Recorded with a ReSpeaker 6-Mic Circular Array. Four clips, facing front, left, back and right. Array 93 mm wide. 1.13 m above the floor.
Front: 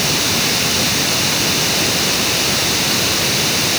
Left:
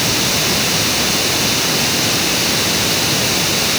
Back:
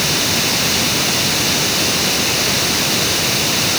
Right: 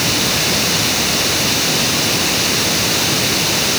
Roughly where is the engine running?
No engine running in this recording.